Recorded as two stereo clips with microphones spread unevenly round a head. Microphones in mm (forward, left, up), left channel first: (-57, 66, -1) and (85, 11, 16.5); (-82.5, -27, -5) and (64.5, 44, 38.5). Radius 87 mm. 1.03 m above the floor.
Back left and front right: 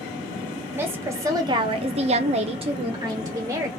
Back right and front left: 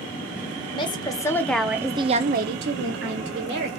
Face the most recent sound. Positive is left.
turn(degrees=50)